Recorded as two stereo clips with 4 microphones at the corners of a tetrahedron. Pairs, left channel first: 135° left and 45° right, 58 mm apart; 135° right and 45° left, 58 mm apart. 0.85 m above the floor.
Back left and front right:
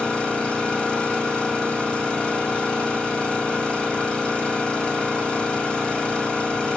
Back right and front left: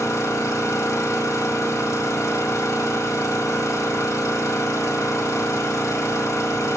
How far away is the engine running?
About 1.9 m.